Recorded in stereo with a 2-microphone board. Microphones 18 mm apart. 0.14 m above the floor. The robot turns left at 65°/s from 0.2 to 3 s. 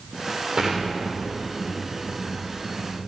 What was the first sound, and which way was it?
An explosion, 30° right.